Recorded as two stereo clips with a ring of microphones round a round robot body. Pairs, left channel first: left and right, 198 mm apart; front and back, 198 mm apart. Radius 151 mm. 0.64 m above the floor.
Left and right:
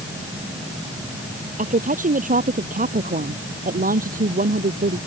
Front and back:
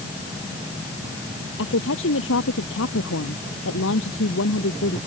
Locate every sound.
1.6 s a woman speaking: 40° right; by 5.0 s 45° right